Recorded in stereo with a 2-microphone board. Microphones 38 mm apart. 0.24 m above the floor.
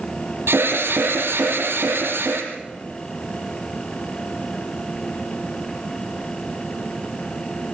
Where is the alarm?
80° right, 5.5 m.